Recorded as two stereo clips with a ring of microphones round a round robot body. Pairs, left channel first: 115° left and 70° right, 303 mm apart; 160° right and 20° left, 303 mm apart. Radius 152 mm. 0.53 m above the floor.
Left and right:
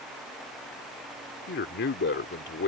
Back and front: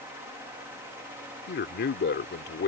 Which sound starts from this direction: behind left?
A man speaking, at 1.5 s.